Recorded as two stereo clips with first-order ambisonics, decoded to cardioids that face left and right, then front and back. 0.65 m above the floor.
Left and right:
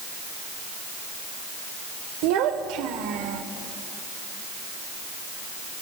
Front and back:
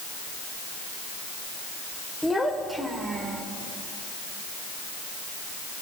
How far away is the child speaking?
About 1.5 m.